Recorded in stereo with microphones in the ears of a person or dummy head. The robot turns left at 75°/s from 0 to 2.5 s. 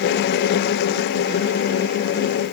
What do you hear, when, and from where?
Only background noise.